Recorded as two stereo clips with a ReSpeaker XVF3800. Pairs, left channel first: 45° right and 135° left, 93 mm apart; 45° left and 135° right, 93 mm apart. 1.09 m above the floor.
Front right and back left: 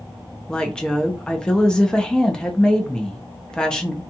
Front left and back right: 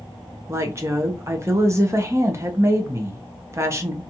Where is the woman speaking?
120° right, 0.6 m.